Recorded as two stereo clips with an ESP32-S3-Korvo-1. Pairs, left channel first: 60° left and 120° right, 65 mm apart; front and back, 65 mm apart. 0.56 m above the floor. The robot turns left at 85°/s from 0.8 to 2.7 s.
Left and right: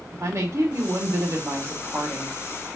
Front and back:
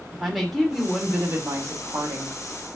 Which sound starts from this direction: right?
A woman speaking, at 0.1 s.